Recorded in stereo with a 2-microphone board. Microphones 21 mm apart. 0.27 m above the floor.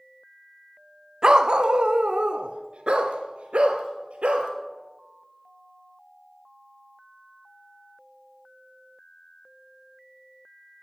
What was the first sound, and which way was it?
A dog barking, 40° right (ahead or behind).